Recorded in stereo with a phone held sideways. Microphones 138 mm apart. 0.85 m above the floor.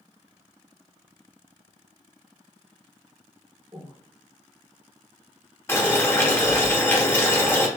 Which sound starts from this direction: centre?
Boiling, at 5.7 s.